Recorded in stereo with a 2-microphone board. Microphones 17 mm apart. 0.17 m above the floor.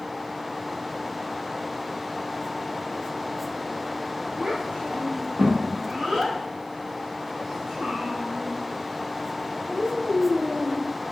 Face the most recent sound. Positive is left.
turn(degrees=-65)  # may be behind; listen again after turning